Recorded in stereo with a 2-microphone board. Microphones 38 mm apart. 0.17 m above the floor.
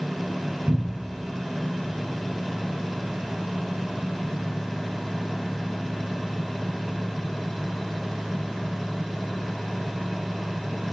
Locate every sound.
0.7 s a cupboard door: 35° right (ahead or behind), 1.5 m